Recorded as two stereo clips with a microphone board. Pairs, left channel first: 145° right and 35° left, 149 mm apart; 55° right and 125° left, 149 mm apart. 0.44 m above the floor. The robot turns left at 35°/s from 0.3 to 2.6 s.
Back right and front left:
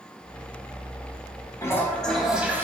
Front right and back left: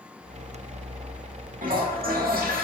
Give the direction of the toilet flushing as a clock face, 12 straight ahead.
7 o'clock.